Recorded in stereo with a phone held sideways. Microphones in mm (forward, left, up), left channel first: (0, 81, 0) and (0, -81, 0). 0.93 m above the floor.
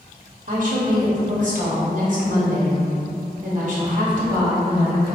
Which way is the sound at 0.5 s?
55° right (ahead or behind).